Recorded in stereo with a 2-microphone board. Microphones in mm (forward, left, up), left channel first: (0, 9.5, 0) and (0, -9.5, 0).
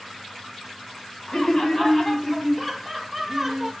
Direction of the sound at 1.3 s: 40° left (ahead or behind).